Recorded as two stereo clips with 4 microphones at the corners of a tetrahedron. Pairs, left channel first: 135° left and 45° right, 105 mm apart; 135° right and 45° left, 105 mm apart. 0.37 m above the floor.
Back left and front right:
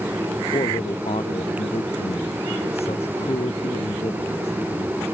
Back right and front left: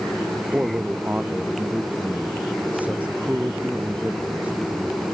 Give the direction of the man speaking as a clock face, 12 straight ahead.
8 o'clock.